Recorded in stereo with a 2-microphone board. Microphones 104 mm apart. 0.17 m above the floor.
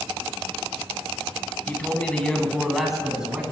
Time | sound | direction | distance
1.7 | a man speaking | 15° left (ahead or behind) | 1.8 m